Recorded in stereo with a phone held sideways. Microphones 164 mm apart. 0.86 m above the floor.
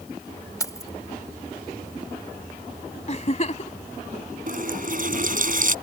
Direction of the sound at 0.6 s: 20° left (ahead or behind).